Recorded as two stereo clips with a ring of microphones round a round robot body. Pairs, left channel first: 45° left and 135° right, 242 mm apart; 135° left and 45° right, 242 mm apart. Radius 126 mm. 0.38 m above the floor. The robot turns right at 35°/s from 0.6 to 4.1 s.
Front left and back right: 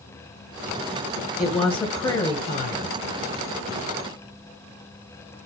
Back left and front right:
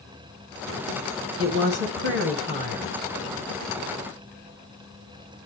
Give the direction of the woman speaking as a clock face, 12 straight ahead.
2 o'clock.